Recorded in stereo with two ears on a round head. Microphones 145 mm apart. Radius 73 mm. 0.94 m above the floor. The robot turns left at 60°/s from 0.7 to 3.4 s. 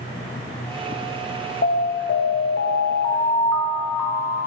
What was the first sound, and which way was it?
An alarm, 115° left.